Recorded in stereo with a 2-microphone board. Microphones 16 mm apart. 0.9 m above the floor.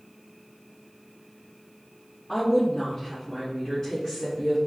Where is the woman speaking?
45° left (ahead or behind), 1.7 m; by 4.6 s 55° left (ahead or behind), 3 m.